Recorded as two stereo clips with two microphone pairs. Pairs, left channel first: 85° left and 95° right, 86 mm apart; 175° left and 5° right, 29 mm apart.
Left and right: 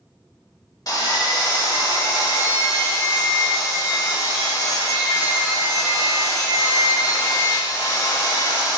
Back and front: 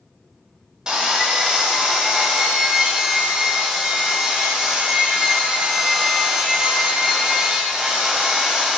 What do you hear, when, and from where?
0.9 s sawing: 55° left, 0.6 m